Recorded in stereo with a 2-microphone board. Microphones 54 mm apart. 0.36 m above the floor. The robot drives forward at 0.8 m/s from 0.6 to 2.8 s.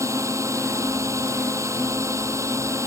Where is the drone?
80° right; by 2.9 s 75° right (ahead or behind).